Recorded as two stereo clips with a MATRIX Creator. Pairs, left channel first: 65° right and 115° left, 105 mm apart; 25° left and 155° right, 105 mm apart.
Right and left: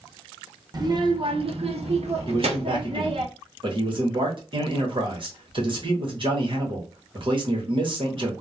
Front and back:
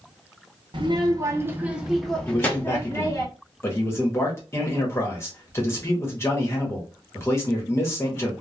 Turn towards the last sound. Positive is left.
turn(degrees=85)